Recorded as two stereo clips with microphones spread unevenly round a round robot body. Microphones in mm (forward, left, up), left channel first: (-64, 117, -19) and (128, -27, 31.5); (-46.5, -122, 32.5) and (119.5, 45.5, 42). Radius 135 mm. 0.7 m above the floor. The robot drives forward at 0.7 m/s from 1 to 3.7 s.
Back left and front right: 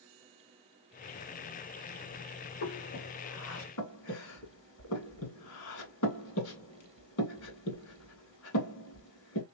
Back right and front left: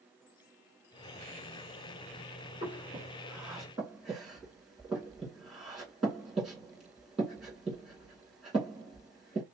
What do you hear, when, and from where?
2.6 s breathing: 120° left, 2.5 m; by 9.4 s 135° left, 2.5 m